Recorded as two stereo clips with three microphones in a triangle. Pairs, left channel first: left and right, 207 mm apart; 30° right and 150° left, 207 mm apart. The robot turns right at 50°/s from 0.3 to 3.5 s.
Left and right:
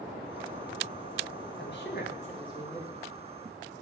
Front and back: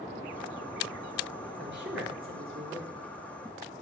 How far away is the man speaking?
About 3 m.